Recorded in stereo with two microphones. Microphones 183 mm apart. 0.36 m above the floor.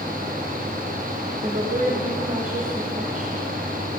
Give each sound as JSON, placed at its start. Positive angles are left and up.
{"t": 1.4, "sound": "a woman speaking", "side_deg": -45, "distance_m": 2.0}